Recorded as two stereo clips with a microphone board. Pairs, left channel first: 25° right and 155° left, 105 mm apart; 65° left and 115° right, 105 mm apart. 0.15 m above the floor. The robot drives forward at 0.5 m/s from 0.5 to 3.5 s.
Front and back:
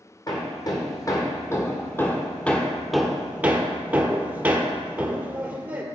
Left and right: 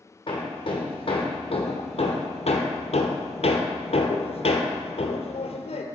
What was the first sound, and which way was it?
Hammering, 30° left.